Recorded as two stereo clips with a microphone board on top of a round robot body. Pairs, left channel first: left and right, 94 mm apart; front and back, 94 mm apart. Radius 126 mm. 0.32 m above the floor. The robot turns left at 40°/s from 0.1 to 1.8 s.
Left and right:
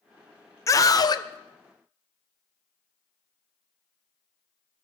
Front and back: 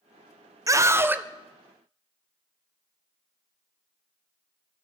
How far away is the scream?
About 1.3 m.